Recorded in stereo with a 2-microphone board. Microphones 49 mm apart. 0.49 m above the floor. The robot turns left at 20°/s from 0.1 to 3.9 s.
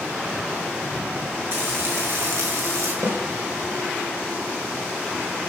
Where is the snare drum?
80° right, 10 m; by 3.2 s 85° right, 10 m.